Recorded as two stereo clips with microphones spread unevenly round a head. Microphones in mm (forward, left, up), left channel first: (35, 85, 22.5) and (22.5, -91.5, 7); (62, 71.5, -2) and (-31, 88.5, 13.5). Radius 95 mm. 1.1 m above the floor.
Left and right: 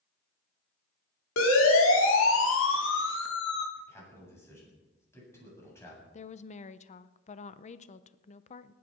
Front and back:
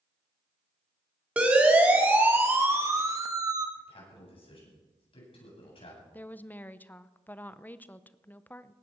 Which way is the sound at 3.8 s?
10° left.